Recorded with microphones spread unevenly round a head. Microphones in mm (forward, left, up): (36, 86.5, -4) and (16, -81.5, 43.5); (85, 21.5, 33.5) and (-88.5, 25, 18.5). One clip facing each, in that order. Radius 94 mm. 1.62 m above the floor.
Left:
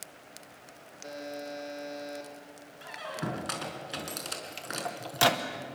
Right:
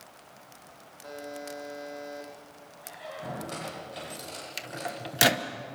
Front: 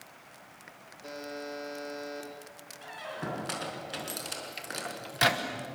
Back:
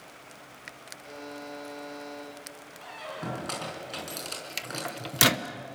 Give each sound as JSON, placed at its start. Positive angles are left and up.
{"t": 1.0, "sound": "a buzzer", "azimuth_deg": 20, "distance_m": 5.0}
{"t": 2.8, "sound": "a squeak", "azimuth_deg": 80, "distance_m": 5.0}
{"t": 4.6, "sound": "a microwave", "azimuth_deg": -150, "distance_m": 0.8}